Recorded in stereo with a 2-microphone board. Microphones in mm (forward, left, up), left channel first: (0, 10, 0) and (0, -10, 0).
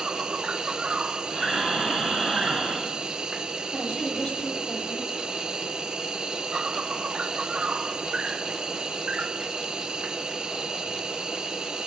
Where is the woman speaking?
75° left (ahead or behind), 4.5 m.